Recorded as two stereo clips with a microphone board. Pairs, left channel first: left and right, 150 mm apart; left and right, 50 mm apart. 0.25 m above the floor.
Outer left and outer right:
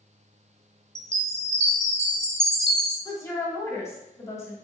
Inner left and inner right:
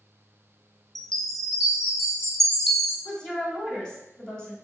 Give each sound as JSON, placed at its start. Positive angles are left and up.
{"t": 0.9, "sound": "a chime", "side_deg": 5, "distance_m": 1.1}
{"t": 3.0, "sound": "a woman speaking", "side_deg": 20, "distance_m": 1.6}